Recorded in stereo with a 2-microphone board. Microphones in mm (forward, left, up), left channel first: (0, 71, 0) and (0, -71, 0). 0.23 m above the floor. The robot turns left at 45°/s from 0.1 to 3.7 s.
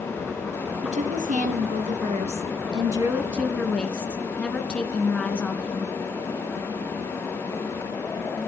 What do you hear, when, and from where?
0.8 s a woman speaking: 60° right, 2 m; by 5.9 s 170° left, 2 m